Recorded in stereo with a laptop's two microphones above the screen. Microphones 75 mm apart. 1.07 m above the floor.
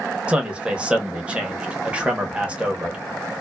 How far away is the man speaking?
About 0.7 m.